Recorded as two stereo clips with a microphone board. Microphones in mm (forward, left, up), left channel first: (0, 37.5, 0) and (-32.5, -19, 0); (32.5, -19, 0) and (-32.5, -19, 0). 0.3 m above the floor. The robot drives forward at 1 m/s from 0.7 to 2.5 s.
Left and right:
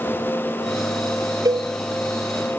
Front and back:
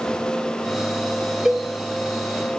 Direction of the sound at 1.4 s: 95° right.